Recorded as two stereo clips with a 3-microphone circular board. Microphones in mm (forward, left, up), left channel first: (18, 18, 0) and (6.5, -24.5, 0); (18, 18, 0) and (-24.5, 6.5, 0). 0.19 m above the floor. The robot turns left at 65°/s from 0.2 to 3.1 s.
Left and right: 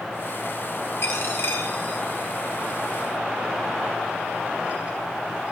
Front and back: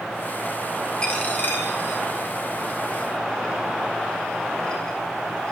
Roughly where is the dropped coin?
Left.